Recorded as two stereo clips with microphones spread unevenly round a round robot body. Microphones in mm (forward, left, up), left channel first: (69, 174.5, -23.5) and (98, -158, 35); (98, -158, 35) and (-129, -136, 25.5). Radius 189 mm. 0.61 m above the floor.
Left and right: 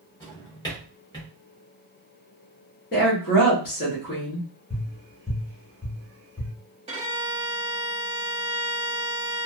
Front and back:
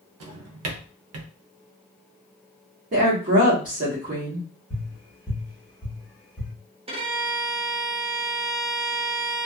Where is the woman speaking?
135° left, 1.0 m.